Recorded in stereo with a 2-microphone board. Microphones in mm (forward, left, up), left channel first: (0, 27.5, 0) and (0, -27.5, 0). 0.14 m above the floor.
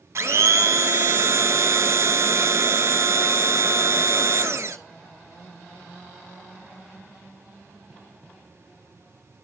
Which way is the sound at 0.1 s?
60° right (ahead or behind).